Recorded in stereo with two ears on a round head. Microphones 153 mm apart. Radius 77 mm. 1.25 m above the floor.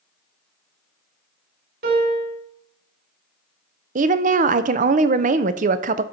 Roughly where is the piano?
Right.